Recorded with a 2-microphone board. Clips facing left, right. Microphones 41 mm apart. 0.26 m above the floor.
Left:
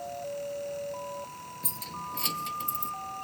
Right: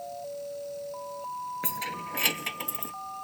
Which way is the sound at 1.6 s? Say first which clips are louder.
Right 5 dB; 55° right (ahead or behind).